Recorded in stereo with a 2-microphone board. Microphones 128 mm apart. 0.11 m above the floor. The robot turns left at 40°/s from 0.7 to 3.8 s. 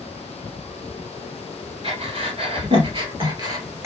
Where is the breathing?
45° right (ahead or behind), 1.6 m; by 3.9 s 20° right (ahead or behind), 1.6 m.